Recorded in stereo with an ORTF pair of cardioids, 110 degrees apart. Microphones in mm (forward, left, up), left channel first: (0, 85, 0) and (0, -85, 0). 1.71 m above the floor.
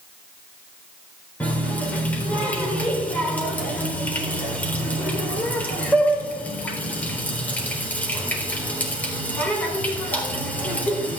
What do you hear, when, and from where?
1.4 s a running tap: 10° left, 3.5 m